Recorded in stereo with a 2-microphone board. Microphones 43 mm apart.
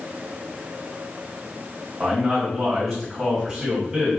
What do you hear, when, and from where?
2.0 s a man speaking: 5° right (ahead or behind), 2 m